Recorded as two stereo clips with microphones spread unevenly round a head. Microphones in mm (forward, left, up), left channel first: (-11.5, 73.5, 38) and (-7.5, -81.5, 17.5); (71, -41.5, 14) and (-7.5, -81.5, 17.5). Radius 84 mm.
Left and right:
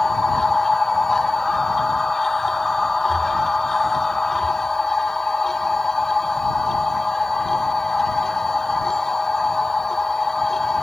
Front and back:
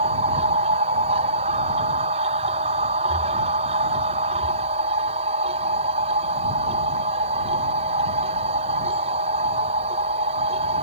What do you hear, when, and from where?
0.0 s a machine running: straight behind